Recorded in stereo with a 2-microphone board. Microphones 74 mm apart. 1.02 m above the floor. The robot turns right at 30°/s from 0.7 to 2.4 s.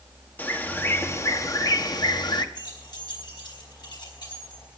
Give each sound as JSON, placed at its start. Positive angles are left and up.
{"t": 0.4, "sound": "a bird", "azimuth_deg": 25, "distance_m": 1.0}
{"t": 2.5, "sound": "keys jangling", "side_deg": 85, "distance_m": 4.5}